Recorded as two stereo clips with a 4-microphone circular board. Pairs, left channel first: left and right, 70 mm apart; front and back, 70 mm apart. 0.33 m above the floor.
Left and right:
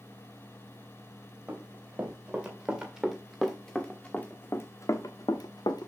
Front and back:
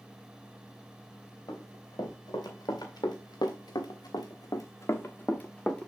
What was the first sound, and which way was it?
Running footsteps, 25° right.